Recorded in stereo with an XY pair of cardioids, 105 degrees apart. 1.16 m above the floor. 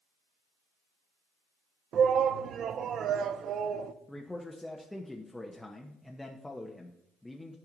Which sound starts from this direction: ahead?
A man speaking, at 4.1 s.